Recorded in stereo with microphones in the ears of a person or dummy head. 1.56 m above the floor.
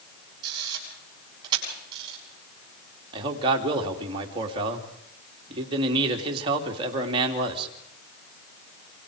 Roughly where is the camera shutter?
Right.